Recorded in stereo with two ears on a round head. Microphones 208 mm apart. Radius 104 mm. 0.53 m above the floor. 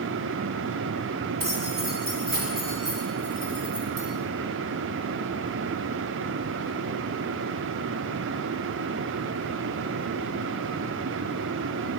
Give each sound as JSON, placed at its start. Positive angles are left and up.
{"t": 1.4, "sound": "keys jangling", "side_deg": -55, "distance_m": 3.5}